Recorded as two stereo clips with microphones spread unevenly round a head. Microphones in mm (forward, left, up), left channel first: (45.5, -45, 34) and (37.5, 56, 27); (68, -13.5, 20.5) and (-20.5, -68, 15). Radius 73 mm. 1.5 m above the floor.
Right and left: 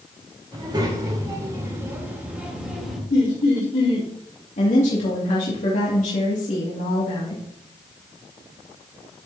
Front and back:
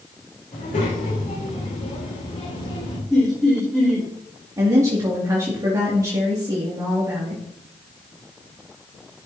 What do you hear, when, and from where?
0.5 s a child speaking: 50° left, 4 m; by 3.0 s 5° left, 3 m
3.1 s laughter: 55° right, 3 m
4.6 s a woman speaking: 90° right, 2.5 m